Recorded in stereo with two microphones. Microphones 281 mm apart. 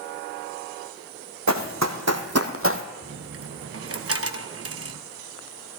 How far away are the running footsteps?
About 1.5 m.